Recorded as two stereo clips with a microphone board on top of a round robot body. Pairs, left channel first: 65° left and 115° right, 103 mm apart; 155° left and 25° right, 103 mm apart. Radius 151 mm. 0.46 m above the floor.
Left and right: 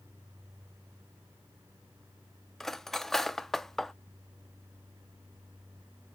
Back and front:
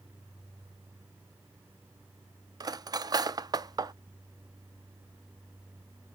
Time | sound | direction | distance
2.6 | cutlery clinking | 15° right | 0.6 m